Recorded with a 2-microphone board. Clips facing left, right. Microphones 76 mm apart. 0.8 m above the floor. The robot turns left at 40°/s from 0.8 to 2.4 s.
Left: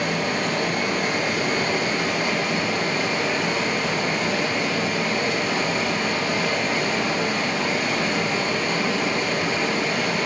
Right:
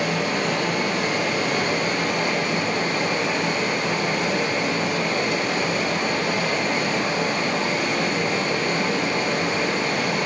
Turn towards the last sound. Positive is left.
turn(degrees=-150)